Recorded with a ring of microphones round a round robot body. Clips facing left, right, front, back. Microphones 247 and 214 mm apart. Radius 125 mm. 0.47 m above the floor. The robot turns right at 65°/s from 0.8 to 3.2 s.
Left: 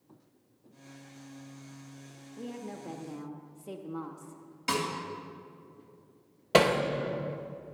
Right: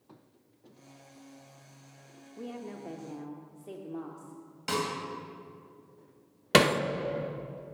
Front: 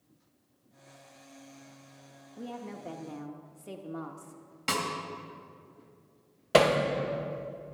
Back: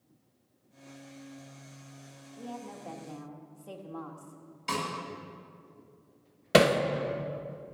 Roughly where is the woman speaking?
Ahead right.